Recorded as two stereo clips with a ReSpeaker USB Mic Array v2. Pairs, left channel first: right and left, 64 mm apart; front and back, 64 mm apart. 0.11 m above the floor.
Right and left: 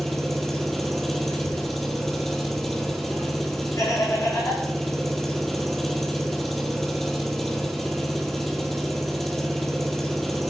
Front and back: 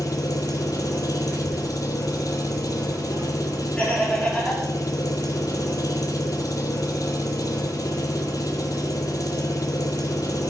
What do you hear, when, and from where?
0.0 s an engine running: 5° right, 1.5 m
1.3 s a child speaking: 120° right, 6.5 m
3.8 s laughter: 70° right, 7 m